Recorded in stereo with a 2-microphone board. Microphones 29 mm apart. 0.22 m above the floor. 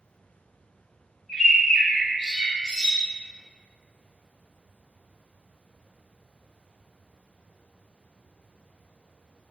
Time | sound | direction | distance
1.3 | a bird | centre (ahead or behind) | 1.9 m